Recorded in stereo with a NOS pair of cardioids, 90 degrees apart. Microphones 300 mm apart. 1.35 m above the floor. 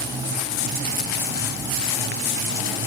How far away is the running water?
About 5 m.